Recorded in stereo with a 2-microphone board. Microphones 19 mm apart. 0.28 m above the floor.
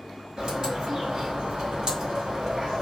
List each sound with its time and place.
0.4 s a bird: 50° right (ahead or behind), 1.3 m